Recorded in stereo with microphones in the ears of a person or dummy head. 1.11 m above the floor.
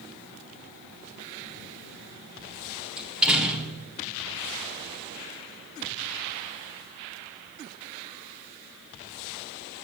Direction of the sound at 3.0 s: 5° right (ahead or behind).